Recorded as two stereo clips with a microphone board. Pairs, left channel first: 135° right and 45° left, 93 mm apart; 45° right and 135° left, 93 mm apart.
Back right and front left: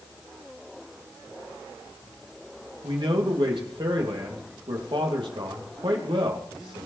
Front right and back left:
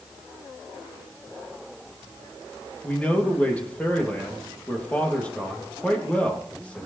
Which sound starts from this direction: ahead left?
A man speaking, at 2.8 s.